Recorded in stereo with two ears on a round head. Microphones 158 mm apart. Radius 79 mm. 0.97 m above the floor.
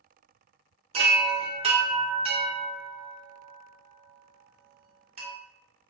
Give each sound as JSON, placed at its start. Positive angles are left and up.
{"t": 0.9, "sound": "a chime", "side_deg": -35, "distance_m": 0.7}